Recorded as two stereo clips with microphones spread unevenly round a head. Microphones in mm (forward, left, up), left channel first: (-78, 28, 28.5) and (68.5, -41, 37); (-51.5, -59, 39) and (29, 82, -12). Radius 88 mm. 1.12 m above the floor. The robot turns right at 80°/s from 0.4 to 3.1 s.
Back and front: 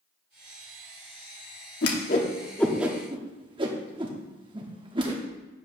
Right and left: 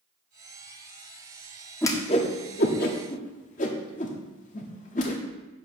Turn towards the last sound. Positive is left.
turn(degrees=-85)